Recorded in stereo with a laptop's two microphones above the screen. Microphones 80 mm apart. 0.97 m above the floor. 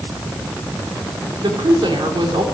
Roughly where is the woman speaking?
Right.